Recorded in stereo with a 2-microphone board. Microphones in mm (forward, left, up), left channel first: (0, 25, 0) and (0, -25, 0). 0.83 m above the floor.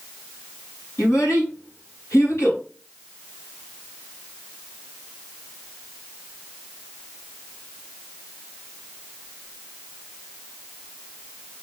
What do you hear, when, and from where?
1.0 s a child speaking: 85° left, 5.5 m